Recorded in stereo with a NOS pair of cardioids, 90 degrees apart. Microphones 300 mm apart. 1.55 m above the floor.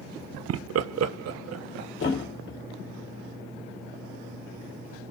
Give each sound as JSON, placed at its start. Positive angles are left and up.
{"t": 0.5, "sound": "laughter", "azimuth_deg": -55, "distance_m": 0.5}
{"t": 2.0, "sound": "a thud", "azimuth_deg": 50, "distance_m": 3.0}